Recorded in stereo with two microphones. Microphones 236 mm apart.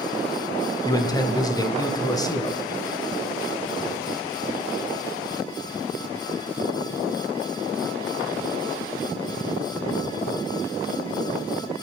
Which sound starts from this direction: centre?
A man speaking, at 0.8 s.